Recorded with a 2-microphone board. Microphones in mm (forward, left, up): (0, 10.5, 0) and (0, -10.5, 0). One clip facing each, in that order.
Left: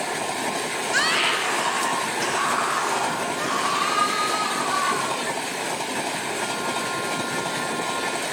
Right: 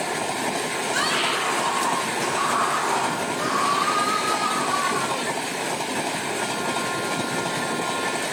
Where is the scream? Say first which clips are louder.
Left 3 dB; 30° left (ahead or behind), 3.5 m; by 5.2 s 35° left (ahead or behind), 6 m.